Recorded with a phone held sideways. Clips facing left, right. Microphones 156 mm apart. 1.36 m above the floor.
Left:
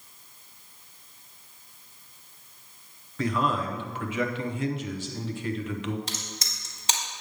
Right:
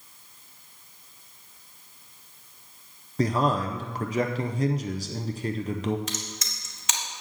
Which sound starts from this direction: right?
A man speaking, at 3.2 s.